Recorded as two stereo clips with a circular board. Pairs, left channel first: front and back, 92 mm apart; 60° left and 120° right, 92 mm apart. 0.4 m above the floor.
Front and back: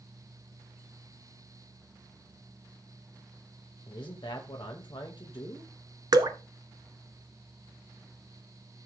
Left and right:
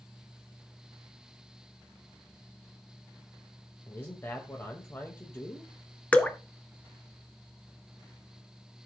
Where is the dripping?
135° left, 1.0 m.